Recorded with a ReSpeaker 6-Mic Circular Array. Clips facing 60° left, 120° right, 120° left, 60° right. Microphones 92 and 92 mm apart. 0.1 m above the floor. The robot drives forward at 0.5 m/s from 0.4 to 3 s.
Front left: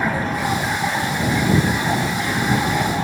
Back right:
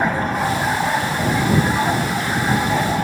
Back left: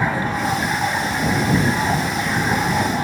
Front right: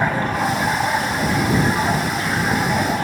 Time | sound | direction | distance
0.0 | running water | 90° right | 6.5 m